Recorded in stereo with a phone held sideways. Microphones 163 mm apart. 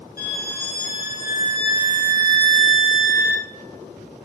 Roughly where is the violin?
Left.